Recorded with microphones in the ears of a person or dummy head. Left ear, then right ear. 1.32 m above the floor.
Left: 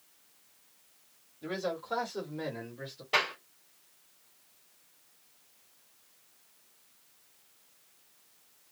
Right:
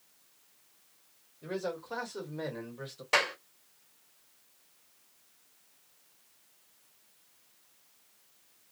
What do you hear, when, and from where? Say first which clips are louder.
1.4 s a man speaking: left 1 dB; 20° left (ahead or behind), 1.3 m; by 3.0 s 25° right (ahead or behind), 1.3 m
3.1 s a clap: right 1 dB; 55° right (ahead or behind), 1.6 m